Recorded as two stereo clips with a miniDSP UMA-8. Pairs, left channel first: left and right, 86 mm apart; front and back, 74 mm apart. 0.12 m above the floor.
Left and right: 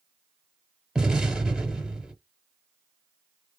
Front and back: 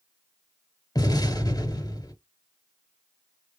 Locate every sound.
0.9 s an explosion: 10° right, 2 m